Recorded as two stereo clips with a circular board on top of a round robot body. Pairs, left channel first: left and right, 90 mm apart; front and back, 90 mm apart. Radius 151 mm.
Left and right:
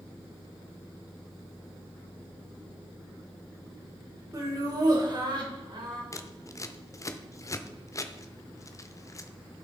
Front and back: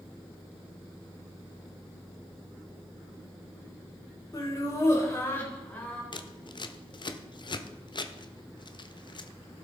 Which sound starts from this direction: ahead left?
Scissors, at 6.1 s.